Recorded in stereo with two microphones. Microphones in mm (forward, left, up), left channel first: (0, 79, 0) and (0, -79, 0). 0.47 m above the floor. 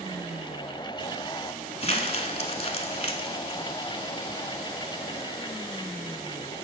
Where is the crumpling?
40° left (ahead or behind), 0.8 m.